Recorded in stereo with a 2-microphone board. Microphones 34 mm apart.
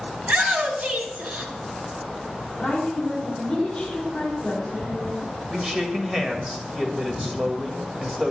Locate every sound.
0.2 s a shout: 50° right (ahead or behind), 1.9 m
2.6 s a woman speaking: 20° left (ahead or behind), 3 m
5.5 s a man speaking: 15° right (ahead or behind), 1.2 m